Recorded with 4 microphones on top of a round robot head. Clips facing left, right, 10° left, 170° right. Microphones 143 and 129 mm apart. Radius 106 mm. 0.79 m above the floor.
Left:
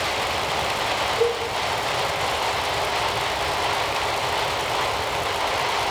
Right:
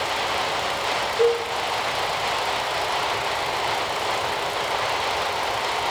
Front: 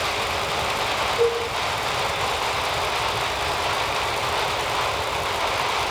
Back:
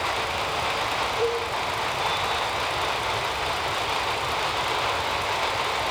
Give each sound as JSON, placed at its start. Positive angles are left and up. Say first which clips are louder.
{"t": 1.2, "sound": "a cowbell", "louder": "right 4 dB, front 5 dB", "azimuth_deg": 55, "distance_m": 1.4}